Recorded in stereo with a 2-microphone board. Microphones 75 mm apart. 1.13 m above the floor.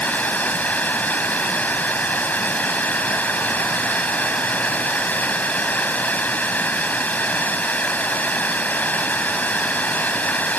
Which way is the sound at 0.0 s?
20° left (ahead or behind).